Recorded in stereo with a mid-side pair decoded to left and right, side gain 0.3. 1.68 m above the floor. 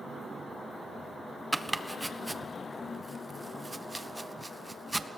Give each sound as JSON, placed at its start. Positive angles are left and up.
{"t": 1.5, "sound": "chopping", "azimuth_deg": -15, "distance_m": 1.4}